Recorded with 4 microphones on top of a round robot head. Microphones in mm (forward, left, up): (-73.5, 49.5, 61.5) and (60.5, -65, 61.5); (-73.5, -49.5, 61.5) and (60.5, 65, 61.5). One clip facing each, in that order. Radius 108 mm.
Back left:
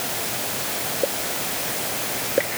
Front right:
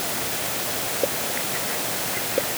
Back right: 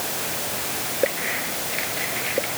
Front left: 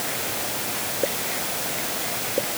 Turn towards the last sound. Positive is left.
No sound to turn to.